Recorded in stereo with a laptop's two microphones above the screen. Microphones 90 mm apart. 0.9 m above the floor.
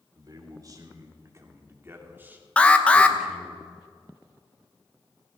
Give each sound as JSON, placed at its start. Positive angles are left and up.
{"t": 0.1, "sound": "a man speaking", "side_deg": -45, "distance_m": 3.5}
{"t": 2.6, "sound": "an alarm", "side_deg": 15, "distance_m": 1.0}